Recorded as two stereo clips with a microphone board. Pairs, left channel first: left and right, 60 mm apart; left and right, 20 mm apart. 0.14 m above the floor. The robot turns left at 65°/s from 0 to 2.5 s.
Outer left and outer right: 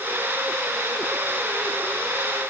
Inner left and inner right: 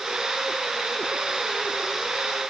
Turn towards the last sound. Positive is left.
No sound to turn to.